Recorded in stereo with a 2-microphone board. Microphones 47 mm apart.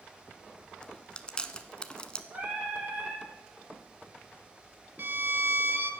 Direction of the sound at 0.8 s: 20° left (ahead or behind).